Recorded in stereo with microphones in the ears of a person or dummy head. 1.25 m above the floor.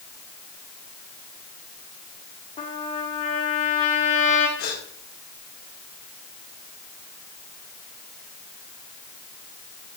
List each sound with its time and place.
2.6 s a trumpet: 30° left (ahead or behind), 2 m
4.6 s a gasp: 50° left (ahead or behind), 3 m